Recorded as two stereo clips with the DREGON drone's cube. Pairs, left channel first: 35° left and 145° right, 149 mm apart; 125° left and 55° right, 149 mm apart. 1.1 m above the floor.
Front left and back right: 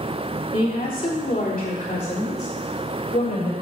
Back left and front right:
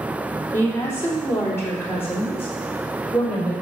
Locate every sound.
0.5 s a woman speaking: 55° left, 3 m; by 3.5 s 50° left, 5.5 m